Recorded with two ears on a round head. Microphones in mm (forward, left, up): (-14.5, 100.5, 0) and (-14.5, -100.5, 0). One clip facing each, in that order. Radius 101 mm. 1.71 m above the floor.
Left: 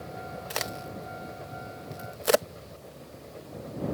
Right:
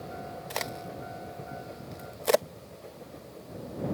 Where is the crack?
10° left (ahead or behind).